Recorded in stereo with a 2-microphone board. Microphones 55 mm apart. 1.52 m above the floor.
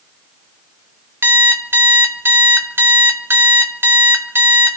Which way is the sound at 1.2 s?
45° right (ahead or behind).